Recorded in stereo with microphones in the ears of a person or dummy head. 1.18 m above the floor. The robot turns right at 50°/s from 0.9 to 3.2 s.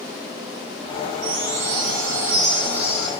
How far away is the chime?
About 2 m.